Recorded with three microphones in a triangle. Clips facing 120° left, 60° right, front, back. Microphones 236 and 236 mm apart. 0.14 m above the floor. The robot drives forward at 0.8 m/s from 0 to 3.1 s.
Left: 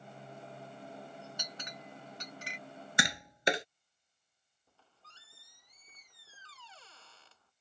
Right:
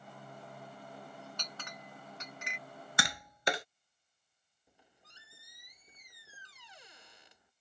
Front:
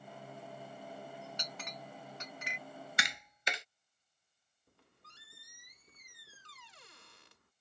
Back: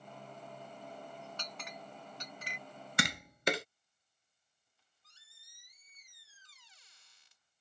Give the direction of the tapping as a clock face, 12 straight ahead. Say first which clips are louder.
Left 3 dB, back 10 dB; 6 o'clock.